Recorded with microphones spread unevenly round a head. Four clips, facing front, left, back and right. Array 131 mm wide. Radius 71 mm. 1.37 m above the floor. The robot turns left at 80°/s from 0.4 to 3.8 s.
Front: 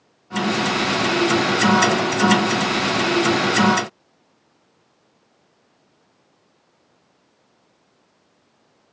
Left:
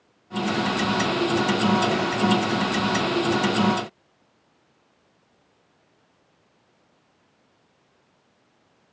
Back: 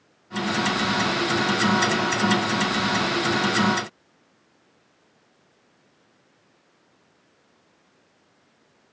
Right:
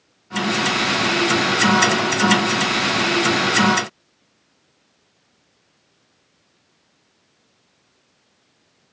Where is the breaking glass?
I don't hear breaking glass.